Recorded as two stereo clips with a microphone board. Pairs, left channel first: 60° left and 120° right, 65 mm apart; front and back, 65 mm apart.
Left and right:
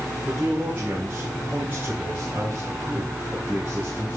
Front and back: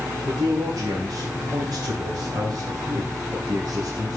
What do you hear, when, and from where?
0.2 s a man speaking: 175° left, 3 m